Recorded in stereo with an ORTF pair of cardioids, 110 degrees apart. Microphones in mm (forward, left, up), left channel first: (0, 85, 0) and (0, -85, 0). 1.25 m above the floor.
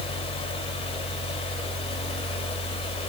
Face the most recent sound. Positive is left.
turn(degrees=35)